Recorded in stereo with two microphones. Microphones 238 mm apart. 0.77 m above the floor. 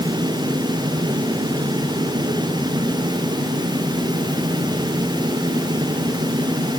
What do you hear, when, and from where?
Only background noise.